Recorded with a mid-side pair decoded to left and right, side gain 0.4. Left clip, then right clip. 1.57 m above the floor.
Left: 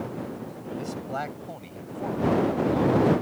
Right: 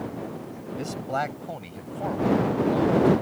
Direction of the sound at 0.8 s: 35° right.